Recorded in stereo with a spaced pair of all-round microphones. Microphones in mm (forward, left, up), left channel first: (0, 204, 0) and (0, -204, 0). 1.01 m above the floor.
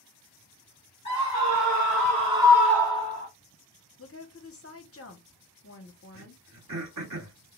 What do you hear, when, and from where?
1.1 s a scream: 45° right (ahead or behind), 1.4 m; by 3.3 s 25° left (ahead or behind), 0.8 m
4.0 s a woman speaking: 35° left (ahead or behind), 0.6 m
6.1 s throat clearing: 50° right (ahead or behind), 1.1 m